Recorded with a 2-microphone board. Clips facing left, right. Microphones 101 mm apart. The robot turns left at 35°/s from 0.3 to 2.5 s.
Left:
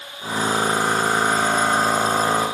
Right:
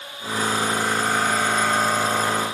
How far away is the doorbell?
No doorbell in this recording.